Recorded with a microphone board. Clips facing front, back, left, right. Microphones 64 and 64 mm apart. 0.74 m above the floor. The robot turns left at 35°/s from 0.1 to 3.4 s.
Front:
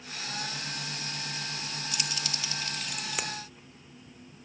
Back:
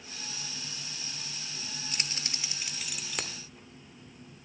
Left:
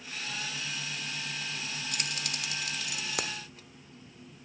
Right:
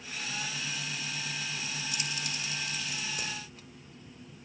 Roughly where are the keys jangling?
Behind left.